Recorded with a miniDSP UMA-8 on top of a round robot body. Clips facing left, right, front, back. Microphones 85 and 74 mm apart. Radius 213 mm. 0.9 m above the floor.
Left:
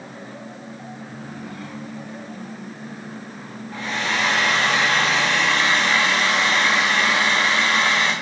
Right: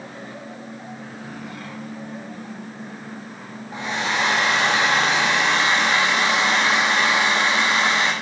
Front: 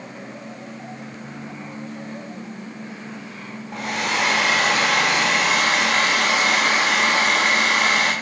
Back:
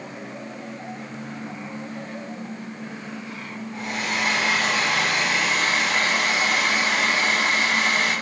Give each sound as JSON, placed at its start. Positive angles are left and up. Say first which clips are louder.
{"t": 3.7, "sound": "a hair dryer", "louder": "right 1 dB, front 4 dB", "azimuth_deg": -20, "distance_m": 0.8}